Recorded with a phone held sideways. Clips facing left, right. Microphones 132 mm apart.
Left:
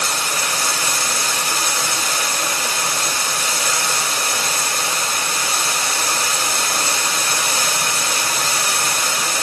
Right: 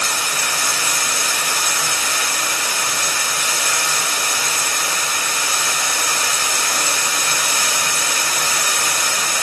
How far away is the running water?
About 1.2 m.